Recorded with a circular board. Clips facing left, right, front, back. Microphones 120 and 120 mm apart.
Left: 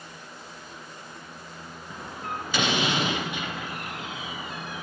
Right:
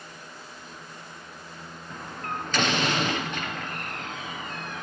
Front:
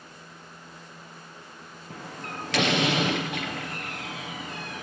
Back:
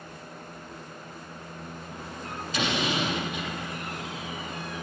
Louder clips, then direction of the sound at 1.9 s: Even, front 3 dB; 10° left.